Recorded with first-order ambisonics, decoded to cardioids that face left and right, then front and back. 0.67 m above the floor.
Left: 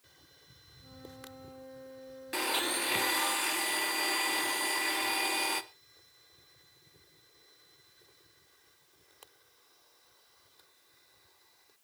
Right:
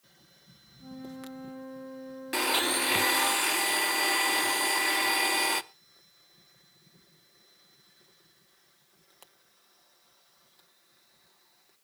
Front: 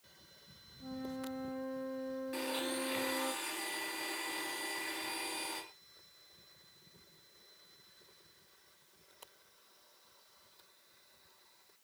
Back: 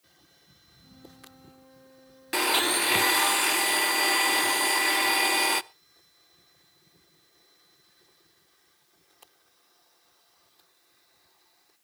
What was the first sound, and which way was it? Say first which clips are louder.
A flute: right 6 dB, front 9 dB; 35° right.